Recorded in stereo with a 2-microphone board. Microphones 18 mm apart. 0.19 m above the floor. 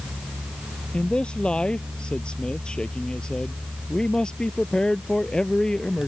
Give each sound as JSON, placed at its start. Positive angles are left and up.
{"t": 0.9, "sound": "a man speaking", "side_deg": 65}